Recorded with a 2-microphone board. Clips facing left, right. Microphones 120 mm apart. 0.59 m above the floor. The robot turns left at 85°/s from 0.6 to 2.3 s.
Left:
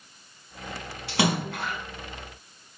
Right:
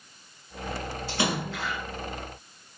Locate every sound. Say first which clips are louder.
1.1 s a splash: left 4 dB; 105° left, 5.5 m; by 1.8 s 45° left, 5.5 m